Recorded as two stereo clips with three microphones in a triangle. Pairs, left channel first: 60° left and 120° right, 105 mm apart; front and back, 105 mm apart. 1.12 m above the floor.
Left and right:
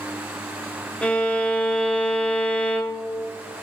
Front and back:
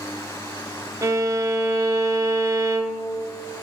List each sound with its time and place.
1.0 s a violin: 130° left, 0.7 m